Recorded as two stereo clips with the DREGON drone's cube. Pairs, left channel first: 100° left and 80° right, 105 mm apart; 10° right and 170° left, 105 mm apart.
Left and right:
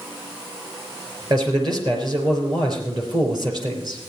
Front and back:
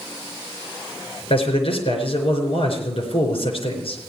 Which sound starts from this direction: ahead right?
A man speaking, at 1.3 s.